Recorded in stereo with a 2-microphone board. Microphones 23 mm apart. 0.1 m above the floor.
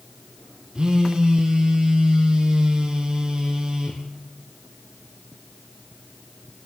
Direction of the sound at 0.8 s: 30° right (ahead or behind).